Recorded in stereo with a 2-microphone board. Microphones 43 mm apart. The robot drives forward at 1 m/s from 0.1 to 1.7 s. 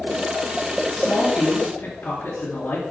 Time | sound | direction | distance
0.9 | a woman speaking | 65° left (ahead or behind) | 2.5 m